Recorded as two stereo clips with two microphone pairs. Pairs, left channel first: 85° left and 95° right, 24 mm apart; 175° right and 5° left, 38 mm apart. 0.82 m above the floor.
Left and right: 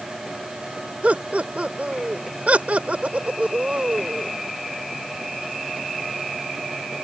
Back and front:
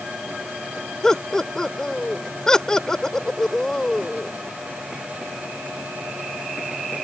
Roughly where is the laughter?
Right.